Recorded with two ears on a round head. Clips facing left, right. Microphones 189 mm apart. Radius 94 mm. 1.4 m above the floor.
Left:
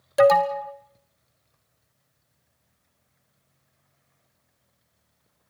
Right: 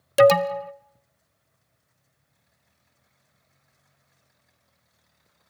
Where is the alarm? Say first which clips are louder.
Right 1 dB; 40° right (ahead or behind), 0.9 m.